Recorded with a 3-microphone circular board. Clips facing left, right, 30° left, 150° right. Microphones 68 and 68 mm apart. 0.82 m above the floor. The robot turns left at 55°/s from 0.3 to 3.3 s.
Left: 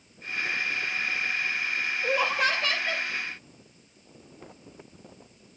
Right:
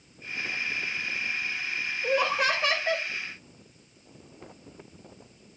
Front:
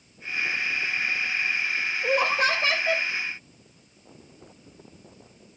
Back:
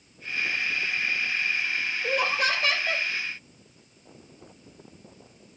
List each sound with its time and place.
2.0 s laughter: 20° left, 0.8 m; by 3.1 s 40° right, 0.8 m